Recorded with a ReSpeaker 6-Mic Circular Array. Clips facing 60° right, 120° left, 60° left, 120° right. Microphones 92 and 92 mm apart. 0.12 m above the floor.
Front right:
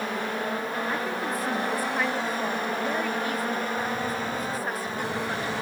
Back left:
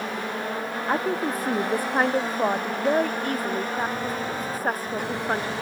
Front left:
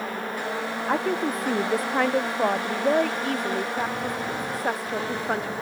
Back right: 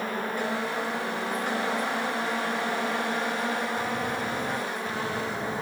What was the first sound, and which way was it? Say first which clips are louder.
A woman speaking: back left 4 dB, front left 5 dB; 75° left.